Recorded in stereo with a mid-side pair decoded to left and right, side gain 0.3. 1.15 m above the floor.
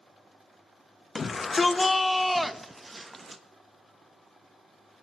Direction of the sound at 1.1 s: 60° left.